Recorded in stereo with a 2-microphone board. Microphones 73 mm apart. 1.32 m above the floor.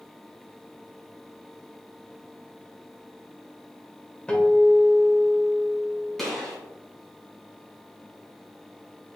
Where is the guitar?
15° left (ahead or behind), 1.9 m.